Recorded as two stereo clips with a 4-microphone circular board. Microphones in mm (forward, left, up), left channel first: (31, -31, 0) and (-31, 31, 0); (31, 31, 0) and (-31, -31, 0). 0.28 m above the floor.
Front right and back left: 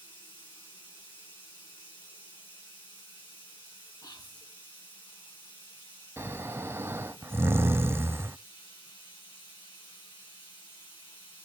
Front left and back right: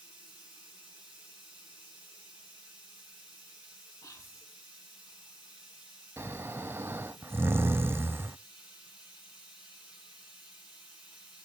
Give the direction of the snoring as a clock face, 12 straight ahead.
6 o'clock.